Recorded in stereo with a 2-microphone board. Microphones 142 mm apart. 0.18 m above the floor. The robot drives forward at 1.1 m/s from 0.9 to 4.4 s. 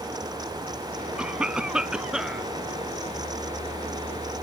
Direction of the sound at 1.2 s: 10° right (ahead or behind).